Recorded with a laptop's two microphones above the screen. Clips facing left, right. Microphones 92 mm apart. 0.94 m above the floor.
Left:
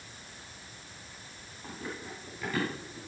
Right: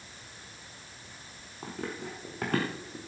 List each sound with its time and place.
1.6 s running footsteps: 70° right (ahead or behind), 4.5 m; by 3.0 s 60° right (ahead or behind), 4.5 m